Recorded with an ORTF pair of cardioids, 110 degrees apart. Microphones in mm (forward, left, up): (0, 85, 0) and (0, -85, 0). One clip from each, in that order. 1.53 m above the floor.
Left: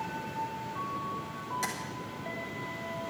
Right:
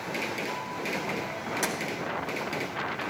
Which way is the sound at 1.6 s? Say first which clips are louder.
Right 5 dB; 25° right.